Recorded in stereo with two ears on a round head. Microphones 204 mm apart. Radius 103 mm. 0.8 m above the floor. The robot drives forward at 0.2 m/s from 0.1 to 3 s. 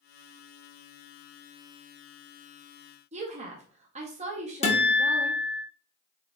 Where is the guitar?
30° left (ahead or behind), 0.9 m.